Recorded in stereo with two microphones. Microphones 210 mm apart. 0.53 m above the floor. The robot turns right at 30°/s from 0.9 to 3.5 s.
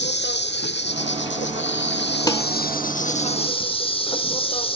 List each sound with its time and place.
0.0 s an insect: 70° left, 1.1 m; by 4.8 s 150° left, 1.1 m
2.3 s dishes clattering: 20° left (ahead or behind), 1.4 m; by 2.4 s 15° left (ahead or behind), 1.4 m